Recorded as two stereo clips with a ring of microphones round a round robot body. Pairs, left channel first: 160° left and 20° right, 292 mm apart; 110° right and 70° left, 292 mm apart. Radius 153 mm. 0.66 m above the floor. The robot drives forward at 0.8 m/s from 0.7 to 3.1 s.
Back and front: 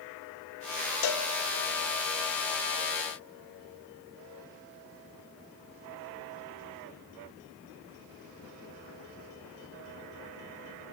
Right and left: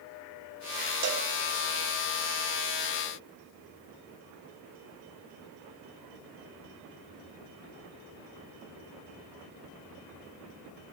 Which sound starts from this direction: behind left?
A cowbell, at 1.0 s.